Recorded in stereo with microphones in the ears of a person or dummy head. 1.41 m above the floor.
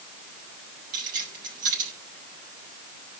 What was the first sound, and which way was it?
Keys jangling, 40° right (ahead or behind).